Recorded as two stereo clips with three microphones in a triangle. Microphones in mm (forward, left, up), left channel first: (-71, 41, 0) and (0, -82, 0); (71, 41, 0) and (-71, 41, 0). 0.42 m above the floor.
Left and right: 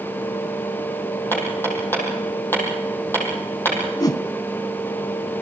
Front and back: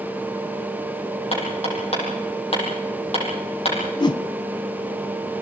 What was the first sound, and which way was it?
Hammering, 45° left.